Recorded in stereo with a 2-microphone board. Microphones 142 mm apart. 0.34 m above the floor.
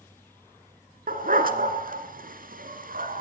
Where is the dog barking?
80° right, 2 m.